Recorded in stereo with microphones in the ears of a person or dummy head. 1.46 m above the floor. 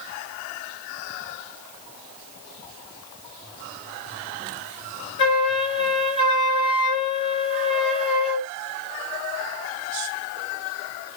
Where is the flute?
25° left (ahead or behind), 1.7 m.